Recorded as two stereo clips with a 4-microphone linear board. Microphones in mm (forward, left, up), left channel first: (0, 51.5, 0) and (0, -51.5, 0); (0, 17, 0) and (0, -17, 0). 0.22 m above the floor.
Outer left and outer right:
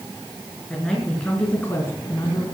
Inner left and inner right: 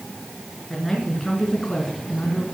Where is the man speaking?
10° left (ahead or behind), 4 m; by 2.5 s 35° left (ahead or behind), 2.5 m.